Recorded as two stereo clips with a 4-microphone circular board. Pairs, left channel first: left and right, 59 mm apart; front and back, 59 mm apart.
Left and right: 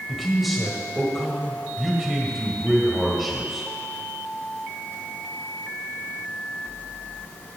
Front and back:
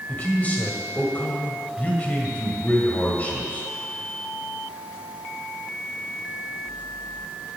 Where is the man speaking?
5° right, 1.6 m.